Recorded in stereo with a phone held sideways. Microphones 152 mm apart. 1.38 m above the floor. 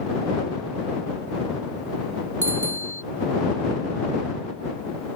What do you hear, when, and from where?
2.4 s a bicycle bell: 50° right (ahead or behind)